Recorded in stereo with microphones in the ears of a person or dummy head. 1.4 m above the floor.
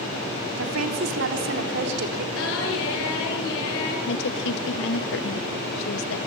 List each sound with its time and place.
0.6 s a woman speaking: 90° right, 3.5 m; by 2.2 s 55° right (ahead or behind), 4.5 m
2.4 s singing: 85° left, 8 m
4.1 s a woman speaking: 70° left (ahead or behind), 1.6 m